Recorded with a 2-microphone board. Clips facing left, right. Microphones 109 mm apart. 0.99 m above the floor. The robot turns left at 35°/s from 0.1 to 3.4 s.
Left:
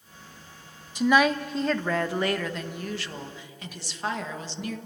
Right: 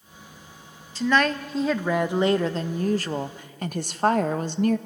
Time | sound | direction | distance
0.9 | a woman speaking | 20° left | 0.8 m